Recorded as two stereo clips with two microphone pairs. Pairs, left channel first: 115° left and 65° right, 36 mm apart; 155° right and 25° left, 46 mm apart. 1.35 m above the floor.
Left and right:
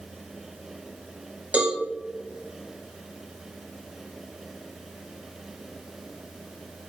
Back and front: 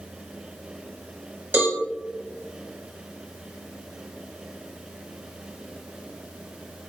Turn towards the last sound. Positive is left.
turn(degrees=-15)